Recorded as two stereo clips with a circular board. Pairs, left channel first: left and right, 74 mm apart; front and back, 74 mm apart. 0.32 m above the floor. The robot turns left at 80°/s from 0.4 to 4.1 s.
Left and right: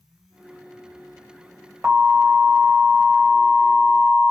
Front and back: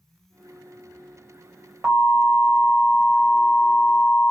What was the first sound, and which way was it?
An alarm, 120° right.